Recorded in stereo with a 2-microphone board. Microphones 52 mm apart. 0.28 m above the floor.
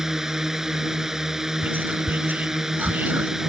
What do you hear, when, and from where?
0.0 s a drone: 10° right (ahead or behind)
1.6 s whispering: 35° right (ahead or behind)